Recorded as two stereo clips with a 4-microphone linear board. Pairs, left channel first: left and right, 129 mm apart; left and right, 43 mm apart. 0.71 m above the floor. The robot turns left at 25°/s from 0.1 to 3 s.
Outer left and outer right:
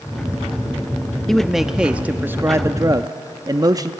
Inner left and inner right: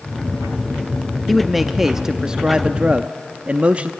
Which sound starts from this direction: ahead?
A man speaking, at 1.3 s.